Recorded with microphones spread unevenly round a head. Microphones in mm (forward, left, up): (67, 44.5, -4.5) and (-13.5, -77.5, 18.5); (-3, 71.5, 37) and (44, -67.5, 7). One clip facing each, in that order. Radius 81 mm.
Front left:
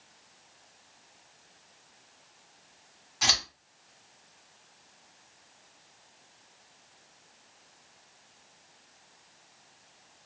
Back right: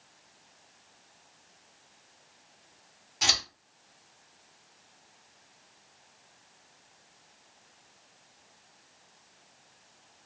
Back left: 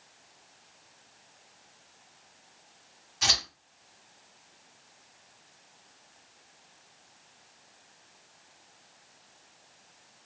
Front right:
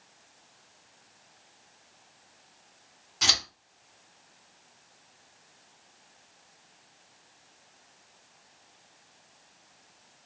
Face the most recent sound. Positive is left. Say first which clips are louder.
# front left 1 dB, even
turn(degrees=-70)